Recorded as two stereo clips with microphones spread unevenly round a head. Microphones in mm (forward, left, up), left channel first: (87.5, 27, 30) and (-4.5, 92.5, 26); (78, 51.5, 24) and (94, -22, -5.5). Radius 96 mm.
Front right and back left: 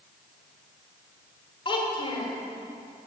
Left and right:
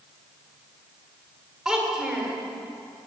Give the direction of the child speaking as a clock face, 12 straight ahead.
12 o'clock.